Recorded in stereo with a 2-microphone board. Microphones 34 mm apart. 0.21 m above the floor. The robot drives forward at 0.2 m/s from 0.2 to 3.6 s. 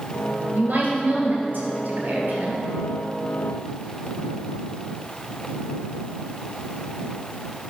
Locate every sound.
0.6 s a woman speaking: 75° right (ahead or behind), 3 m; by 2.6 s 70° right (ahead or behind), 3.5 m